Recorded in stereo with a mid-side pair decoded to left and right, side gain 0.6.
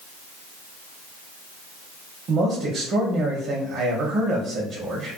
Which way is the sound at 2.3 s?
50° right.